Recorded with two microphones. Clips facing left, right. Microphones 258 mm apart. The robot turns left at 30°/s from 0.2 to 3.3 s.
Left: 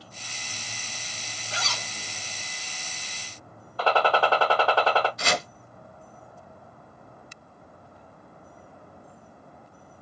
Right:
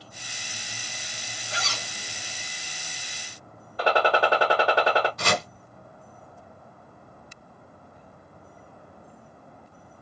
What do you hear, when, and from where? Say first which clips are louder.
1.5 s a zipper: even; 15° right (ahead or behind), 1.1 m; by 1.9 s 10° right (ahead or behind), 1.1 m
3.8 s a gunshot: right 1 dB; 20° right (ahead or behind), 0.8 m
5.2 s chopping: right 2 dB; 60° right (ahead or behind), 1.2 m